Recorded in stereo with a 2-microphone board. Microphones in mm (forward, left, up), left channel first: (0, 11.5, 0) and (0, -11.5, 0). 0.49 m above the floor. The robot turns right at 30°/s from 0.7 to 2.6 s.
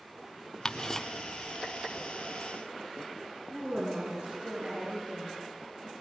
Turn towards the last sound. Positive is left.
turn(degrees=-80)